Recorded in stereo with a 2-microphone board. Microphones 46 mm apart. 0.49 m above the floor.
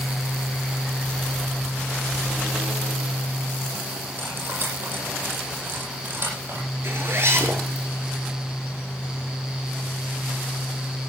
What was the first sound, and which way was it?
Cutlery clinking, 50° right (ahead or behind).